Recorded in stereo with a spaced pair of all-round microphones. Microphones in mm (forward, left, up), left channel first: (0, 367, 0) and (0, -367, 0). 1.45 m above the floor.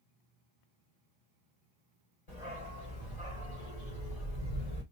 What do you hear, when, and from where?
2.3 s a dog barking: 60° left (ahead or behind), 2.5 m